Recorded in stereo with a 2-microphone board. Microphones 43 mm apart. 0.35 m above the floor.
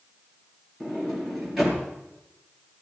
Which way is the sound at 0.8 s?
5° right (ahead or behind).